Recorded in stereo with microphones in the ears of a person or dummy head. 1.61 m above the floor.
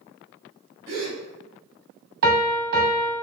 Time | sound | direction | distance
0.9 | a gasp | 45° right (ahead or behind) | 1.6 m
2.2 | a piano | 60° right (ahead or behind) | 1.2 m